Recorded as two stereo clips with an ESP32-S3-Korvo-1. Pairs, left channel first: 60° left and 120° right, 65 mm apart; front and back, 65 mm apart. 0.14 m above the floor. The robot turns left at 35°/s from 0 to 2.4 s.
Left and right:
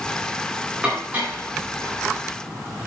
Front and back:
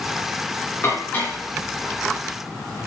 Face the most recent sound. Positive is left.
turn(degrees=-105)